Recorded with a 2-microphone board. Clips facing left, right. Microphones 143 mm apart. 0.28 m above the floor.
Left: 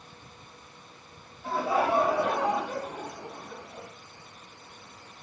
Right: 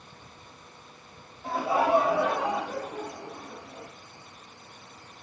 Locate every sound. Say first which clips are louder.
1.4 s laughter: right 1 dB; 20° right (ahead or behind), 1.7 m; by 3.9 s 10° left (ahead or behind), 2.5 m